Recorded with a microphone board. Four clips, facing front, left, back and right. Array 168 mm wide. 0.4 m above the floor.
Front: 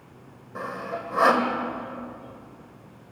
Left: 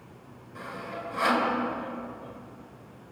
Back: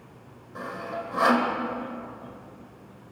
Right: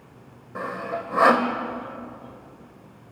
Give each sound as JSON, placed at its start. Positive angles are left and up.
{"t": 0.6, "sound": "sawing", "azimuth_deg": -70, "distance_m": 2.0}